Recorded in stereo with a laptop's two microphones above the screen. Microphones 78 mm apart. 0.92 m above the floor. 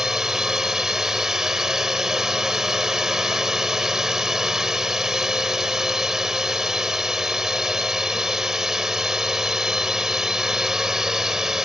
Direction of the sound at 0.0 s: 5° right (ahead or behind).